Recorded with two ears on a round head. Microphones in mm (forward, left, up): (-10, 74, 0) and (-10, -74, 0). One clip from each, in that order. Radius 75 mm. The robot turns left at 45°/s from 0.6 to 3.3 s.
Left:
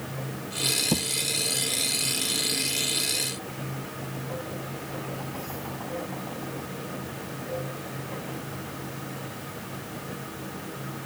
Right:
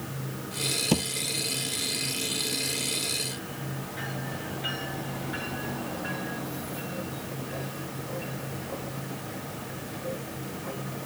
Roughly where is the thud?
Right.